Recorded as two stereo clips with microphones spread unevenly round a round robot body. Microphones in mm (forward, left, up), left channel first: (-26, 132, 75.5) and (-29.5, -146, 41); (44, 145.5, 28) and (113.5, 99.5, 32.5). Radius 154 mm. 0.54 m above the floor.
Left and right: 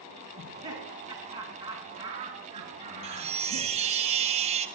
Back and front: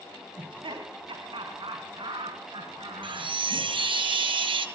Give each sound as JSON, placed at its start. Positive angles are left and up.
{"t": 0.4, "sound": "laughter", "azimuth_deg": -15, "distance_m": 4.0}
{"t": 3.0, "sound": "a chime", "azimuth_deg": -20, "distance_m": 3.5}